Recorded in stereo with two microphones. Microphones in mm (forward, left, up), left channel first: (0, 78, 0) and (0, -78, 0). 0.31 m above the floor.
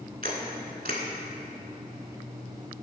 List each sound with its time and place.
0.2 s a camera shutter: 80° right, 0.9 m